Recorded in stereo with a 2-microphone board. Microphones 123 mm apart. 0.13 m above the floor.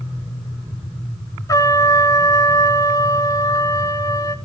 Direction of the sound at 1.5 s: 30° left (ahead or behind).